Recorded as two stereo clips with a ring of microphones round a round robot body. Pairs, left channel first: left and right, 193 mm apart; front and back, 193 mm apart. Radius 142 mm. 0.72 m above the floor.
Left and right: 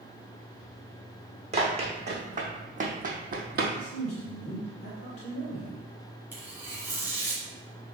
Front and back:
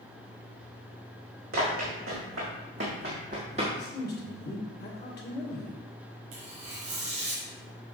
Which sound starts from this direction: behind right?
Running footsteps, at 1.5 s.